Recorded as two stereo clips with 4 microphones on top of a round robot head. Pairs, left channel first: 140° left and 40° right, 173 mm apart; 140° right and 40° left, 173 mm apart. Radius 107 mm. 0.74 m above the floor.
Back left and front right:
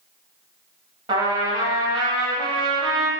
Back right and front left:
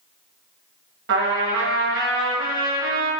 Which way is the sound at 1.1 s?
25° left.